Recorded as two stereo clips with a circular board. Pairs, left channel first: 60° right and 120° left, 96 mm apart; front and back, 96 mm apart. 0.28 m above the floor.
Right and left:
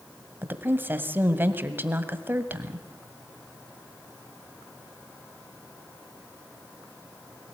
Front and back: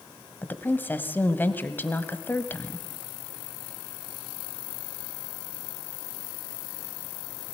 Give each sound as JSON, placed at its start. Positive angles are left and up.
{"t": 0.4, "sound": "a woman speaking", "azimuth_deg": 60, "distance_m": 1.5}